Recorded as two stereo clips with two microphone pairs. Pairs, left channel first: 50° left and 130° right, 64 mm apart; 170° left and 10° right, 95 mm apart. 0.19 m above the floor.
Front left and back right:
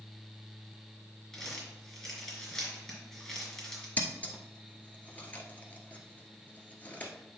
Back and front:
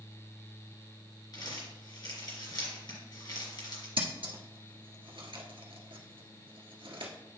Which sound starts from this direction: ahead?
Scissors, at 4.0 s.